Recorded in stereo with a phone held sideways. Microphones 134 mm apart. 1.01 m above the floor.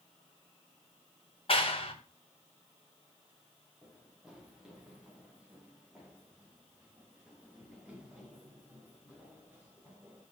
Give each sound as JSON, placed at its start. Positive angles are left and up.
{"t": 1.5, "sound": "a clap", "side_deg": 45, "distance_m": 3.5}
{"t": 3.8, "sound": "running footsteps", "side_deg": -5, "distance_m": 6.0}